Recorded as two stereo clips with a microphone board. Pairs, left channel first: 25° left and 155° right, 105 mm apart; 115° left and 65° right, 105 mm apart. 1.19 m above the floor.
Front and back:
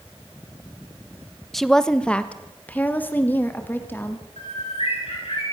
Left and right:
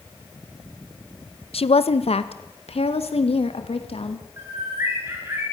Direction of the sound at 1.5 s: 110° left.